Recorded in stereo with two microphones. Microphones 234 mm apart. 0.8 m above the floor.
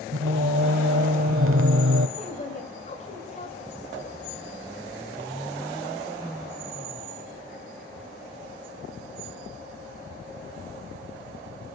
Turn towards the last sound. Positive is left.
turn(degrees=30)  # may be behind; listen again after turning